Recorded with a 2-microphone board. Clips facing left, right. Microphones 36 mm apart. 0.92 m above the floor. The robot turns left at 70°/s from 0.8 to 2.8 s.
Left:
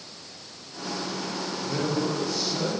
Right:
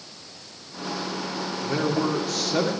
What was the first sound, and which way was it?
A man speaking, 25° right.